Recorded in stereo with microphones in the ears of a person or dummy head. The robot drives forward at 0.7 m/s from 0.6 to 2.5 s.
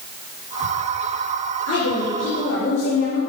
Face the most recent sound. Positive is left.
turn(degrees=85)